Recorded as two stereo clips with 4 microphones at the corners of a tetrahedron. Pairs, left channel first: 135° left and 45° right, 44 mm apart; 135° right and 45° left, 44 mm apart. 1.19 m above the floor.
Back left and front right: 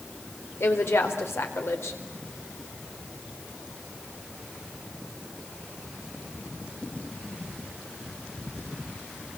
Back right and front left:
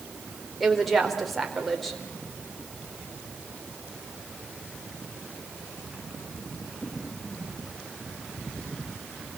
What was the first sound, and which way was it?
A woman speaking, 135° left.